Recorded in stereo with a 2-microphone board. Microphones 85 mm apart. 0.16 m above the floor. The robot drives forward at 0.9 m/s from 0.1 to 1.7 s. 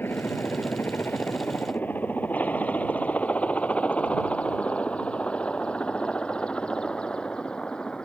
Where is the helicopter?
25° left (ahead or behind); by 8.1 s 10° left (ahead or behind).